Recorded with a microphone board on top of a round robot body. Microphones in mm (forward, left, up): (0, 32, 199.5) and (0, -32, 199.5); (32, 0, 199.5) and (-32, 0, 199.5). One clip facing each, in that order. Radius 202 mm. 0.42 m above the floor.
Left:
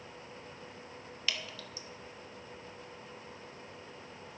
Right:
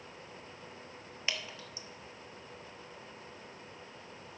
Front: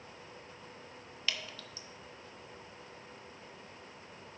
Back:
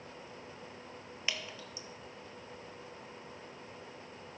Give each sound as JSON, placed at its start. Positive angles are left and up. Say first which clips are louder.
{"t": 1.3, "sound": "dripping", "louder": "even, even", "azimuth_deg": -130, "distance_m": 1.4}